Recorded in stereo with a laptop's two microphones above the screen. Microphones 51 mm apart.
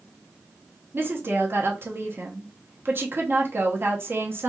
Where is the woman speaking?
45° right (ahead or behind), 0.8 m.